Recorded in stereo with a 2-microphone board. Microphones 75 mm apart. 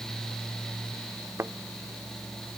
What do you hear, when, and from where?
1.4 s a thud: 35° right (ahead or behind)